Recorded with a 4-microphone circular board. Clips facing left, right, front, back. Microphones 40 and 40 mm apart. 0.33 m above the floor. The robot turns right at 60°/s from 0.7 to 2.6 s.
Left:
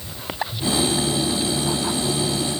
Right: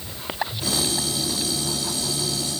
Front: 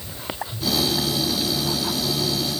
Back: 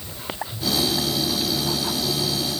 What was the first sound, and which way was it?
Only background noise.